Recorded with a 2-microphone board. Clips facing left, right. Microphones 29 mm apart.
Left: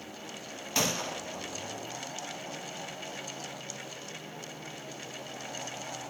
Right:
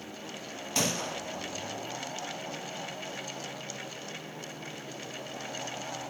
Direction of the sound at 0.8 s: 10° left (ahead or behind).